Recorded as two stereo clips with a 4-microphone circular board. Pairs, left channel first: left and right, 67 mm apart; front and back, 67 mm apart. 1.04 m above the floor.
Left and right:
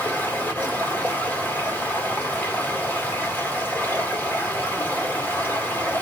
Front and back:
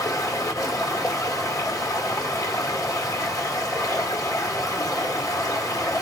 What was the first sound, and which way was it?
Running water, 30° left.